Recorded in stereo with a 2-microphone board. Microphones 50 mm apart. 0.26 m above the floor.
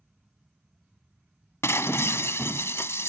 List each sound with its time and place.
1.6 s breaking glass: 60° left (ahead or behind)